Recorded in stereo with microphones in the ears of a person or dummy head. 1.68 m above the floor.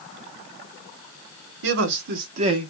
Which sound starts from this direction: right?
A man speaking, at 1.6 s.